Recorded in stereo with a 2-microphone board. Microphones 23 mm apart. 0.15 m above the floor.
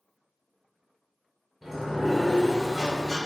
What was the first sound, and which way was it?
A sliding door, 10° right (ahead or behind).